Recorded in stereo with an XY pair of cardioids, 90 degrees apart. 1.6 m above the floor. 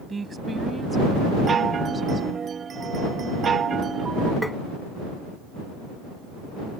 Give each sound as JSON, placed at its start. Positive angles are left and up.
{"t": 0.1, "sound": "a woman speaking", "azimuth_deg": -30}
{"t": 1.5, "sound": "a chime", "azimuth_deg": -50}
{"t": 4.4, "sound": "tapping", "azimuth_deg": 5}